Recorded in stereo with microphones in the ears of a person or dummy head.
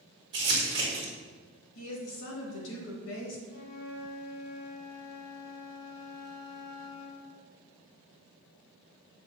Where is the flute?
50° left (ahead or behind), 1.0 m.